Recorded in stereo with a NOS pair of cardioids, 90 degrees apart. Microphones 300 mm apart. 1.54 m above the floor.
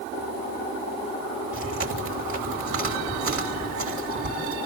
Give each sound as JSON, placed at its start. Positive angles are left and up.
{"t": 1.5, "sound": "chewing", "azimuth_deg": -45, "distance_m": 6.0}